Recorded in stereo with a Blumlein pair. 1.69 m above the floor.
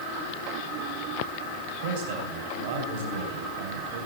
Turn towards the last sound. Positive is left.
turn(degrees=-50)